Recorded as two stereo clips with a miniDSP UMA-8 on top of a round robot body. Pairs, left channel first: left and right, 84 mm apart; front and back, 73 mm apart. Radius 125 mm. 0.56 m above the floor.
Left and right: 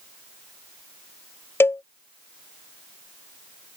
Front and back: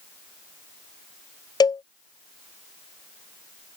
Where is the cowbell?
25° left.